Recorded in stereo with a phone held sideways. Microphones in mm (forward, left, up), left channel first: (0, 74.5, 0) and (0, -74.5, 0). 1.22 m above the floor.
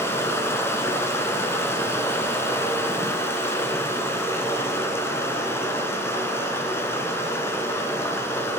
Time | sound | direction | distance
0.0 | running water | 15° left (ahead or behind) | 1.2 m